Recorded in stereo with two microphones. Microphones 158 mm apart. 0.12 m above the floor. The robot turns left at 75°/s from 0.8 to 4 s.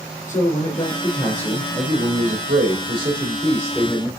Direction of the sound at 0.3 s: 55° left.